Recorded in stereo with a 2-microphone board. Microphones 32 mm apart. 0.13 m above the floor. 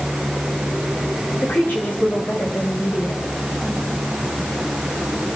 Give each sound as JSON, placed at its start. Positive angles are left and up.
{"t": 1.4, "sound": "a woman speaking", "side_deg": 65, "distance_m": 10.0}